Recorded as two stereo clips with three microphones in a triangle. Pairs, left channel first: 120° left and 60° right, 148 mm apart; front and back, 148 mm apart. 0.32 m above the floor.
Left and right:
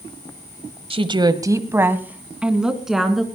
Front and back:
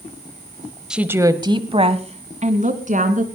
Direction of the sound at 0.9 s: 95° right.